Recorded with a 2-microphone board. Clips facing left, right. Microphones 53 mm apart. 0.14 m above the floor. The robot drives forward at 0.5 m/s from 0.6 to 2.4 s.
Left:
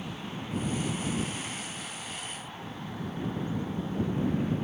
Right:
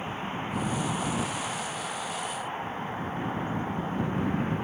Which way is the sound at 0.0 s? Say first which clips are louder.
Right 5 dB; 30° right (ahead or behind).